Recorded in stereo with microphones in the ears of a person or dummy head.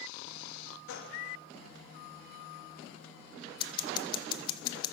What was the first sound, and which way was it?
A gunshot, 70° left (ahead or behind).